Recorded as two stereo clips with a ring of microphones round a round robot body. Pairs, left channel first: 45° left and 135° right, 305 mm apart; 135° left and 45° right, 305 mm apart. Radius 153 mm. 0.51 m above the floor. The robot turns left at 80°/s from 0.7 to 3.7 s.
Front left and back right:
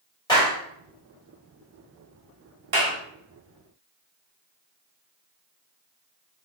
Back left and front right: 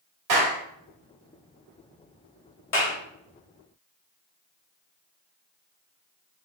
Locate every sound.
0.3 s a clap: 30° right, 2.0 m
2.7 s a clap: straight behind, 2 m; by 3.0 s 160° left, 2 m